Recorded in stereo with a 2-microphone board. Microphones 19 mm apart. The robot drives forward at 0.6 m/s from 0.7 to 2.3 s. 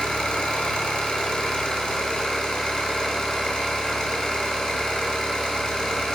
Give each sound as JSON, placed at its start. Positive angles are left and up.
{"t": 0.0, "sound": "an engine running", "side_deg": 70, "distance_m": 2.0}